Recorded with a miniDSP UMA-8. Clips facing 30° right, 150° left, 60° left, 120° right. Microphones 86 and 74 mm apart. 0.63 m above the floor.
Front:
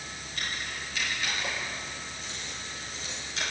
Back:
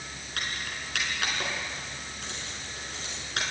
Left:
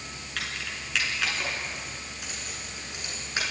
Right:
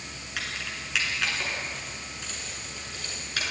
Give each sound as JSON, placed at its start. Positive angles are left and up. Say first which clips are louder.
{"t": 0.4, "sound": "keys jangling", "louder": "back 1 dB, even", "azimuth_deg": 160, "distance_m": 6.5}